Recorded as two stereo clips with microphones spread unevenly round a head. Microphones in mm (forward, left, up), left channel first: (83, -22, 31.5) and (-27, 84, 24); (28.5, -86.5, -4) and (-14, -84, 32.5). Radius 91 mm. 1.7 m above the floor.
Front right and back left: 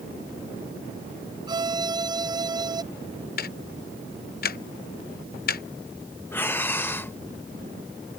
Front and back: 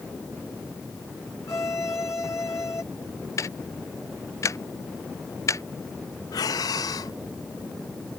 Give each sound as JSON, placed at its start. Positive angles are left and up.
{"t": 1.5, "sound": "a violin", "azimuth_deg": 70}
{"t": 3.4, "sound": "ticking", "azimuth_deg": -20}
{"t": 6.3, "sound": "breathing", "azimuth_deg": 25}